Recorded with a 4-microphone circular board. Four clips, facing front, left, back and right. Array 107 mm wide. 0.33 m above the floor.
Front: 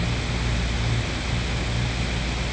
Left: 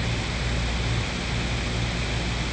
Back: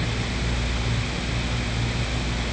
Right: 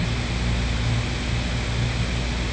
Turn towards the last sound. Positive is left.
No sound to turn to.